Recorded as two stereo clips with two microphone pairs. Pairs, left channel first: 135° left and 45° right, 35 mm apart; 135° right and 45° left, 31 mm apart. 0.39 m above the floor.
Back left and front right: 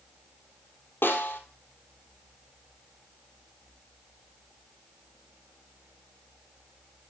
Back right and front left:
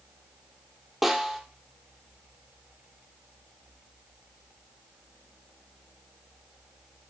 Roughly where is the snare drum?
Behind left.